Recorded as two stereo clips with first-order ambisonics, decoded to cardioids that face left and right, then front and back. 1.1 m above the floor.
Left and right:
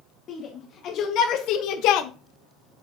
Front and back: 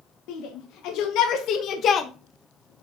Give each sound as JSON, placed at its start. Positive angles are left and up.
{"t": 0.3, "sound": "a shout", "azimuth_deg": 30, "distance_m": 1.5}